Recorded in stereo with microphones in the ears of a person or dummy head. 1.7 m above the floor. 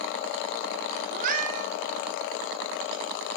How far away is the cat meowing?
About 2 m.